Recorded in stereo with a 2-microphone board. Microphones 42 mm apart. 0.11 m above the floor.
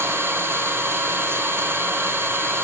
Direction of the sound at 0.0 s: 70° right (ahead or behind).